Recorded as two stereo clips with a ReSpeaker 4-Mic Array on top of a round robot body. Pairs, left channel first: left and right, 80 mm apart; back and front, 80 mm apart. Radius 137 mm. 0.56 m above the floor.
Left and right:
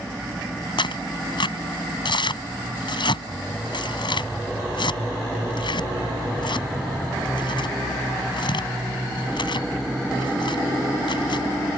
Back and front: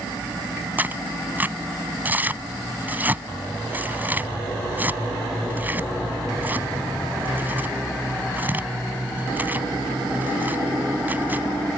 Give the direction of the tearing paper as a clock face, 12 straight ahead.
10 o'clock.